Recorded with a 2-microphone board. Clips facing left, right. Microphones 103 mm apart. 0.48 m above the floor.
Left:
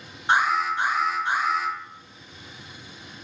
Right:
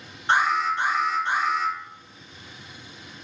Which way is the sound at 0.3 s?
15° left (ahead or behind).